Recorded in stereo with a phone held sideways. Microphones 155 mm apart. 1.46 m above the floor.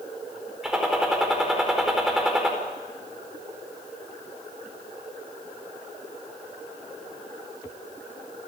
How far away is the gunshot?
About 4.5 m.